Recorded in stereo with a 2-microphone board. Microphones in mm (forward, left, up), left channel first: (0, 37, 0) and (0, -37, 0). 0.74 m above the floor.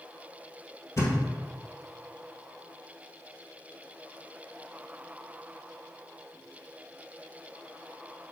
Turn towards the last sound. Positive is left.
turn(degrees=40)  # may be behind; listen again after turning